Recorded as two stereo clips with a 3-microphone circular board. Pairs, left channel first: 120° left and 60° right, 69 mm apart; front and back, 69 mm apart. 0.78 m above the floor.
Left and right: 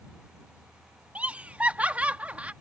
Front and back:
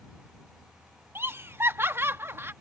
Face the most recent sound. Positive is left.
turn(degrees=-125)